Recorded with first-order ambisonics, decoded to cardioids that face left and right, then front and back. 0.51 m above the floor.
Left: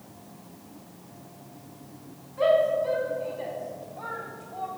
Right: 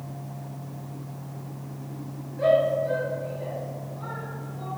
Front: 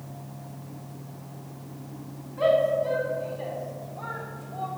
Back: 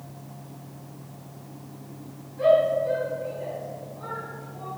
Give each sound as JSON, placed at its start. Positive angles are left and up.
{"t": 2.4, "sound": "a shout", "azimuth_deg": 50, "distance_m": 4.5}